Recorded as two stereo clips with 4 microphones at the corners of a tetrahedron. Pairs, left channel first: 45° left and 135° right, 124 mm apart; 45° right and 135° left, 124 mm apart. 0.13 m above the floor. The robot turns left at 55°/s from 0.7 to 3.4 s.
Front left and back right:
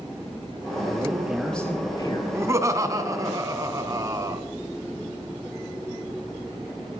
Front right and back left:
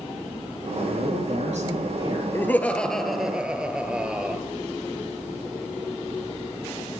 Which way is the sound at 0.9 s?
165° left.